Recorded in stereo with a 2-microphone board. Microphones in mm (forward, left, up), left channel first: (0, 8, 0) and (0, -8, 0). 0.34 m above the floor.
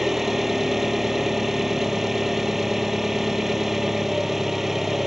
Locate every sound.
0.0 s an engine running: 20° right (ahead or behind)